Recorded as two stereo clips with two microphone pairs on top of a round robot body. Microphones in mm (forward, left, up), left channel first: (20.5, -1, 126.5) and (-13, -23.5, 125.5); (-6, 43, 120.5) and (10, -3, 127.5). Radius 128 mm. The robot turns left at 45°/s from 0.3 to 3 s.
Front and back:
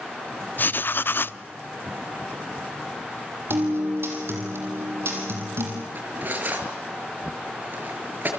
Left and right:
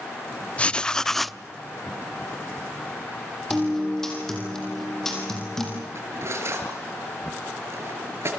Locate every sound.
0.6 s writing: 60° left, 0.8 m; by 1.4 s 20° left, 0.8 m
3.5 s a guitar: 170° right, 6.5 m
6.0 s cutlery clinking: 105° right, 6 m